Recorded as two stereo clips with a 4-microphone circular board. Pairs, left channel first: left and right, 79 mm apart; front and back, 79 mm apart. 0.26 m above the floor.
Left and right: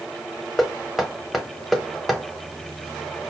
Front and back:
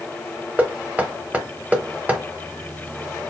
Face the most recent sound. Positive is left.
turn(degrees=180)